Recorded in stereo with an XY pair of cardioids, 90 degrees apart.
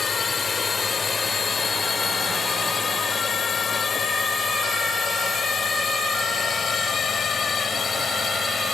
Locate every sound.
0.0 s a drone: 35° left; by 8.8 s 45° left